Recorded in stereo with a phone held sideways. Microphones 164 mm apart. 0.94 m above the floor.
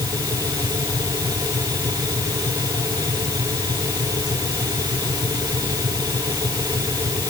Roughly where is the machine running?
Right.